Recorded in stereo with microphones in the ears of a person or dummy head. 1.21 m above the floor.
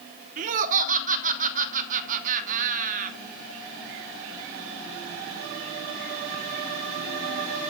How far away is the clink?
I don't hear a clink.